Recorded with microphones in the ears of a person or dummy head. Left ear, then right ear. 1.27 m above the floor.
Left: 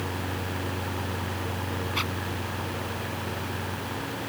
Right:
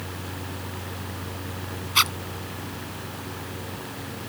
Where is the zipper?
50° right (ahead or behind).